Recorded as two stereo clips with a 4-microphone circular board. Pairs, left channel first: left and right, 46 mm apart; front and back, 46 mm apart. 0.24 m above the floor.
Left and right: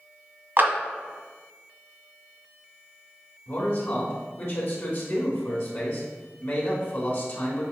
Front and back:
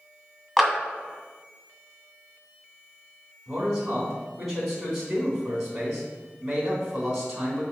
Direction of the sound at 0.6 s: 80° right.